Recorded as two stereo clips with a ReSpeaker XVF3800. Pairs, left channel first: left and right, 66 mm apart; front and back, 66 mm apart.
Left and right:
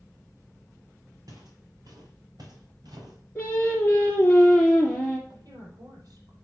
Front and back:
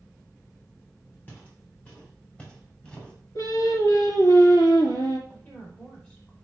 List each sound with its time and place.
1.3 s footsteps: 60° right, 4.5 m; by 3.2 s 75° right, 4.5 m
3.4 s singing: 15° left, 2.5 m
5.3 s a woman speaking: 65° right, 5 m